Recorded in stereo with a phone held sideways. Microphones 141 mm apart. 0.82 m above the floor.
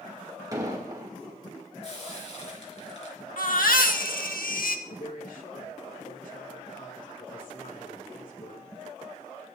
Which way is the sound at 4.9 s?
75° left (ahead or behind).